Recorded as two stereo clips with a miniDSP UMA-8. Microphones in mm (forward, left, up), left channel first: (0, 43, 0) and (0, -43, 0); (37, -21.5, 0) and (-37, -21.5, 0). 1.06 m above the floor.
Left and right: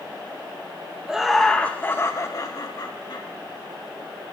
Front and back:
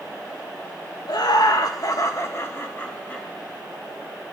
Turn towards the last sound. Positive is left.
turn(degrees=70)